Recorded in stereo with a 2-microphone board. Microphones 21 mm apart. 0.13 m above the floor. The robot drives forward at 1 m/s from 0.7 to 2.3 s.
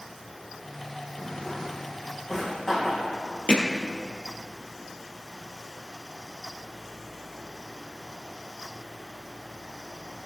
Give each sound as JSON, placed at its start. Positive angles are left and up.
{"t": 1.2, "sound": "a drawer", "side_deg": 30, "distance_m": 2.0}
{"t": 3.5, "sound": "hammering", "side_deg": 45, "distance_m": 1.8}